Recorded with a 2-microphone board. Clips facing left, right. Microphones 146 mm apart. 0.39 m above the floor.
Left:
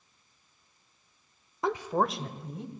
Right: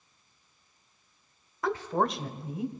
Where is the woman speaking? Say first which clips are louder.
Even; 20° left (ahead or behind), 0.9 m; by 2.7 s 10° right (ahead or behind), 1.7 m.